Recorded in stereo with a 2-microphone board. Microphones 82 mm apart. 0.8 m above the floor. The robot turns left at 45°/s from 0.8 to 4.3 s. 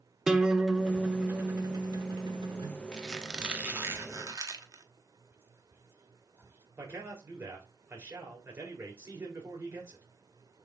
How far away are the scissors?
I don't hear scissors.